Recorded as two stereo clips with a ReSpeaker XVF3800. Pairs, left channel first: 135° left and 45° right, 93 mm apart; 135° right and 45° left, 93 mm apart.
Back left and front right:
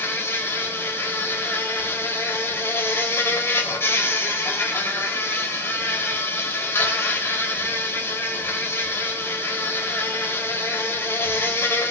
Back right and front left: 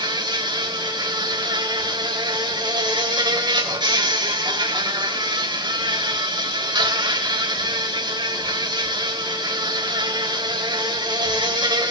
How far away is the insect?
About 2.5 m.